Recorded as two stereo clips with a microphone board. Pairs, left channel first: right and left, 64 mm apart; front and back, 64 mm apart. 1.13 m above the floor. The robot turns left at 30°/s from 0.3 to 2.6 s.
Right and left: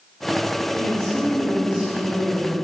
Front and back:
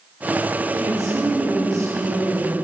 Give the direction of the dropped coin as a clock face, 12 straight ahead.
No dropped coin in this recording.